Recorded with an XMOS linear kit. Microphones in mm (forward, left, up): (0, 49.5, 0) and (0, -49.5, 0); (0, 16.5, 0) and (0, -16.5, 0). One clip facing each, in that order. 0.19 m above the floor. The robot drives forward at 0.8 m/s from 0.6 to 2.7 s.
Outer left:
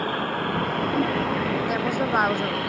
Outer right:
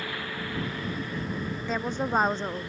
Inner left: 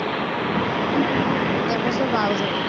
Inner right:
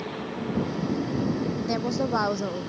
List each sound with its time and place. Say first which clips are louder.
0.0 s a vehicle: outer left 9 dB, inner left 9 dB; 45° left (ahead or behind); by 2.7 s 75° left (ahead or behind)
1.7 s a woman speaking: outer left 5 dB, inner left 5 dB; 10° left (ahead or behind)